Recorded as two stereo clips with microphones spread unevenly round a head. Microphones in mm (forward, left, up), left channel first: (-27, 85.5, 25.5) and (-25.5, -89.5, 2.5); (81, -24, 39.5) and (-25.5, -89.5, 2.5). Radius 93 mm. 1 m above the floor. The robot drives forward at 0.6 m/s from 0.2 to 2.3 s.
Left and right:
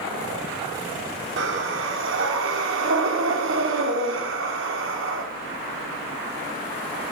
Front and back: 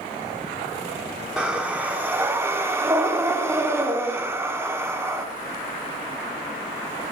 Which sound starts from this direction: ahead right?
Breathing, at 1.4 s.